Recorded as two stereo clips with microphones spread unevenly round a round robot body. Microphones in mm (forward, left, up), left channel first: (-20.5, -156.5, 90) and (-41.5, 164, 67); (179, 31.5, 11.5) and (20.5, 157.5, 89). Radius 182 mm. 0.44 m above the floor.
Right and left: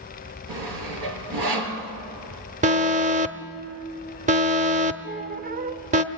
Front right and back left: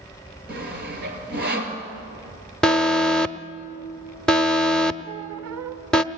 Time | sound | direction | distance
0.5 | sawing | 105° left | 3.5 m
2.6 | an alarm | 35° left | 1.1 m
5.0 | a squeak | 155° left | 0.8 m